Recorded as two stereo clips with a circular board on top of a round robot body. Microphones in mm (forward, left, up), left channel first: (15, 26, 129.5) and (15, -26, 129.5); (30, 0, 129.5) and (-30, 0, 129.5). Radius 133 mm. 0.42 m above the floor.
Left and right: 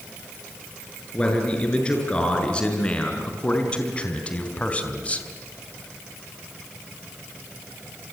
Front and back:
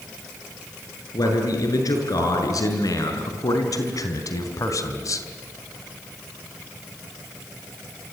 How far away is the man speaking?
About 7.5 m.